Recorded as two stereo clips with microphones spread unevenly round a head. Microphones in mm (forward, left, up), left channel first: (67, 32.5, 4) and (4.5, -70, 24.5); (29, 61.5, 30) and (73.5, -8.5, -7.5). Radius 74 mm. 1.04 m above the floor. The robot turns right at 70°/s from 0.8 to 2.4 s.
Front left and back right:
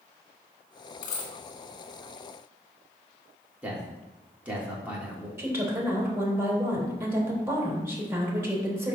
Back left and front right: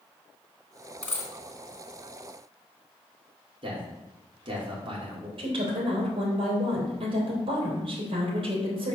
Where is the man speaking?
45° right, 3 m.